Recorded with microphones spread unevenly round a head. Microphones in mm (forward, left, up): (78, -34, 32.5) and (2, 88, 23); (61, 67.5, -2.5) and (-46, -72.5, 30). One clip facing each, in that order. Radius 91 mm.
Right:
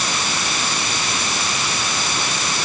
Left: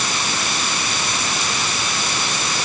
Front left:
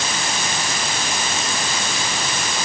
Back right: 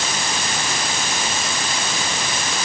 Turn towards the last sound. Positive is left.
No sound to turn to.